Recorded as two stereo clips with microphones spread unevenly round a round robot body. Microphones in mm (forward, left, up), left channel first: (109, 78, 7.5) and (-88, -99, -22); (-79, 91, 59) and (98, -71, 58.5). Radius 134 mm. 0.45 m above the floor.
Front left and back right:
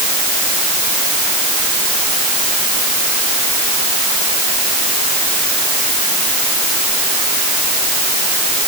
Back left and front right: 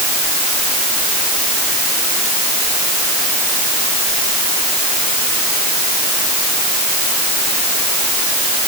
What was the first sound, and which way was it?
Only background noise.